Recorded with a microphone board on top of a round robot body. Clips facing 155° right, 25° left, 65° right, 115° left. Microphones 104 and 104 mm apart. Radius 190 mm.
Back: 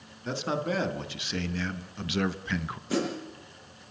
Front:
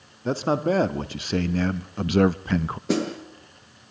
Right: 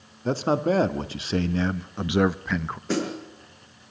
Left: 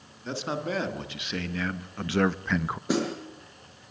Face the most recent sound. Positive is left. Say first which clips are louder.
# front 4 dB, right 1 dB
turn(degrees=35)